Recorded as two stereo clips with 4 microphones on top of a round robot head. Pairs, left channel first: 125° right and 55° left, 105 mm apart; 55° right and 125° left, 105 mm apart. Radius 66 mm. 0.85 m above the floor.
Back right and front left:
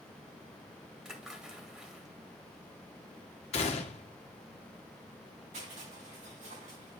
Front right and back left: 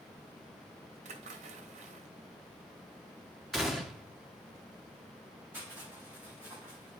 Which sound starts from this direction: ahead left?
Crushing, at 5.5 s.